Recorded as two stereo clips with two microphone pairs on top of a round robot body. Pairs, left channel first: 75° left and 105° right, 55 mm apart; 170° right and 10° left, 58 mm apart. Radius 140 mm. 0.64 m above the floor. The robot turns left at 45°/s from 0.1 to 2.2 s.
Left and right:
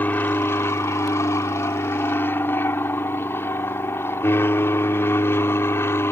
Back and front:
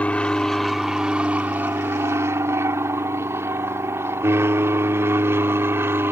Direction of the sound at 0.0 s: 125° left.